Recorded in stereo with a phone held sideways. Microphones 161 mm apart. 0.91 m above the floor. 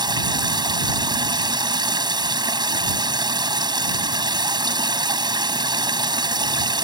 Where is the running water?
25° right (ahead or behind).